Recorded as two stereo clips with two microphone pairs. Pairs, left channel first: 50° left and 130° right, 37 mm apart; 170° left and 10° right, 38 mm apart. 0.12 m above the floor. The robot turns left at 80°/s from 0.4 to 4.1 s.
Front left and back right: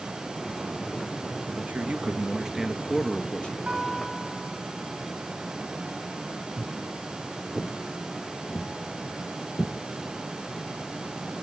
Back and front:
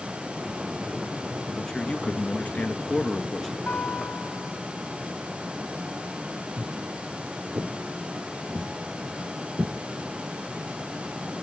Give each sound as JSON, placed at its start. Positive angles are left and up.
{"t": 1.6, "sound": "a man speaking", "azimuth_deg": -120, "distance_m": 1.3}
{"t": 3.7, "sound": "a guitar", "azimuth_deg": 160, "distance_m": 8.0}
{"t": 6.6, "sound": "footsteps", "azimuth_deg": -45, "distance_m": 4.0}